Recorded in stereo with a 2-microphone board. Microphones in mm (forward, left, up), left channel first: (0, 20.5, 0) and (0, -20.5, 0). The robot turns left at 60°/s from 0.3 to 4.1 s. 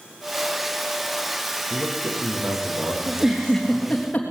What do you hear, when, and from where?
1.7 s a man speaking: 30° right, 5.5 m; by 4.1 s 170° right, 5.5 m
3.1 s a giggle: 25° right (ahead or behind), 3.5 m; by 4.3 s 35° left (ahead or behind), 3.5 m